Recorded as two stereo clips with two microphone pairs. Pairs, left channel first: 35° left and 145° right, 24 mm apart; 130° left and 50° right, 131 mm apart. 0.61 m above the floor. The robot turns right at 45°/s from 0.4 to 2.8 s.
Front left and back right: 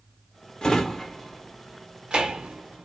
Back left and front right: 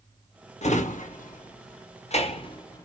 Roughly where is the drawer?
Left.